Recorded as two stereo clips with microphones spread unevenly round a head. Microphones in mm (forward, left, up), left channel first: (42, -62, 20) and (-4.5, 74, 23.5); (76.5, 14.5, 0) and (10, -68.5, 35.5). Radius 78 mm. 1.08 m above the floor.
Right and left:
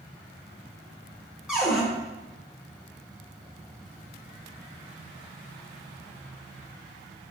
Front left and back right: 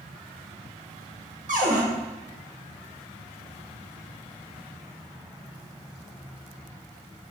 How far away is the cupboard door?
About 0.7 m.